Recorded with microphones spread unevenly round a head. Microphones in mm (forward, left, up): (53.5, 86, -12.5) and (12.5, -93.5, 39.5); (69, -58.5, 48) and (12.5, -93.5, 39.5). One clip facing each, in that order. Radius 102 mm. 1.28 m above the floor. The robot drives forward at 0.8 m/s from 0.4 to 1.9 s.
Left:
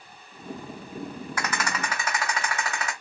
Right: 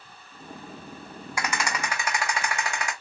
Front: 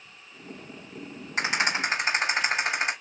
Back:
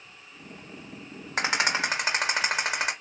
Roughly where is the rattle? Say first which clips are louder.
Right 1 dB, even; behind.